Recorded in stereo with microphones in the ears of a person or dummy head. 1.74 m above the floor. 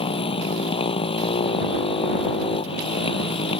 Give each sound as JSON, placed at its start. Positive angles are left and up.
{"t": 0.0, "sound": "a motorcycle", "side_deg": 25}